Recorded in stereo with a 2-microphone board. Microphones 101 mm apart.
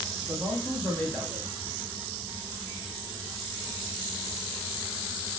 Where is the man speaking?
20° left (ahead or behind), 1.2 m.